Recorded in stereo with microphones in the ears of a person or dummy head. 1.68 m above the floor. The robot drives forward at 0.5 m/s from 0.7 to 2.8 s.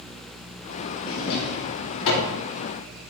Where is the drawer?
70° left (ahead or behind), 2.5 m.